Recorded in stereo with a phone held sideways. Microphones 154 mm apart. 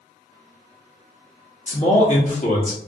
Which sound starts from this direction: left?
A man speaking, at 1.7 s.